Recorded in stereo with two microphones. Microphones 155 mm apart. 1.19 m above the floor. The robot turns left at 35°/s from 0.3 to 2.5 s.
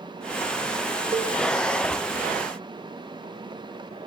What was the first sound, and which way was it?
A cowbell, 40° right (ahead or behind).